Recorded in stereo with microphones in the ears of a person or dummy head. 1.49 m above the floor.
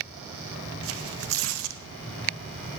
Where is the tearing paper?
75° right (ahead or behind), 1.0 m.